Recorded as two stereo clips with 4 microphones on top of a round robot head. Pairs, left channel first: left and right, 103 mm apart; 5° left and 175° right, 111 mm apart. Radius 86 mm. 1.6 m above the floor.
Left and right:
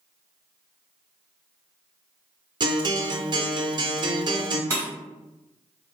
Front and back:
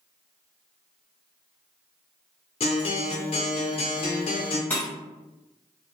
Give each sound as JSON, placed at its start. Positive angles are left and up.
{"t": 2.6, "sound": "a guitar", "azimuth_deg": -45, "distance_m": 0.6}
{"t": 4.7, "sound": "breaking glass", "azimuth_deg": -65, "distance_m": 0.9}